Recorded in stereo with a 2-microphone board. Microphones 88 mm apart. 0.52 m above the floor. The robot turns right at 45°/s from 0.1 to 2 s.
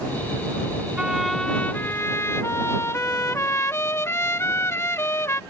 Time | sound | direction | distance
1.0 | a trumpet | 10° right | ?